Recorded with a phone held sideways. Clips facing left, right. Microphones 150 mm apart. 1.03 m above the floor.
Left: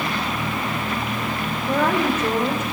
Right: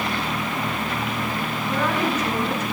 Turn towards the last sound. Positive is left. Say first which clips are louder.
# left 4 dB
turn(degrees=55)  # may be behind; listen again after turning